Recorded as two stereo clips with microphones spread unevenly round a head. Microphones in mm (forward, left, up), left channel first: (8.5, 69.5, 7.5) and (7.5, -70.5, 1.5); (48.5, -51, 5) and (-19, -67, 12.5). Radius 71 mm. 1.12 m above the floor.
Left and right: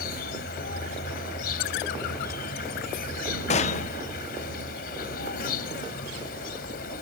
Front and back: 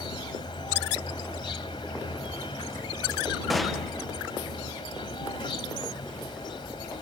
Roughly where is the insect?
Left.